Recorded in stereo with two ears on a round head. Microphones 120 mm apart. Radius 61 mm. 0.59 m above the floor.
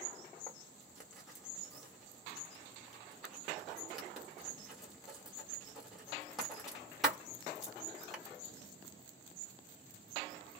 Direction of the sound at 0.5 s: Centre (ahead or behind).